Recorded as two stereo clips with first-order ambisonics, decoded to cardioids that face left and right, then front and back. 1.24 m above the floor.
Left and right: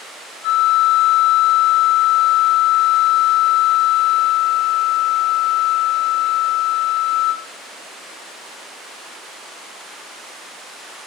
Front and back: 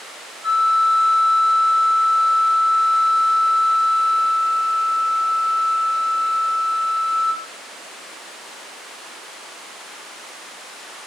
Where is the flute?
80° left, 0.7 m.